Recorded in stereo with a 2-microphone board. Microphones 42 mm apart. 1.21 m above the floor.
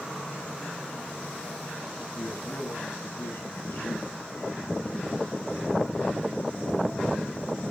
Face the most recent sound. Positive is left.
turn(degrees=85)